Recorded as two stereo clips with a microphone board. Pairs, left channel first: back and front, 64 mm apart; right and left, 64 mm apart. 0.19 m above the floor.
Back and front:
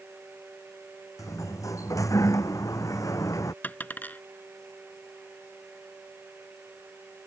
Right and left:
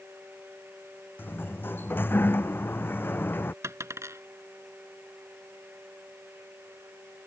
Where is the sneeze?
I don't hear a sneeze.